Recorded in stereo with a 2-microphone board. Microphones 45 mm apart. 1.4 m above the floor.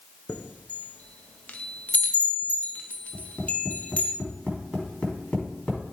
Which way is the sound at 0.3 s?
35° left (ahead or behind).